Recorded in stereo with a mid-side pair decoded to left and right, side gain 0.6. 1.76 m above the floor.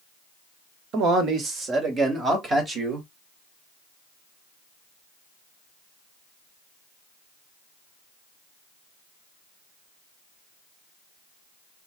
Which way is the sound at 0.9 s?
55° right.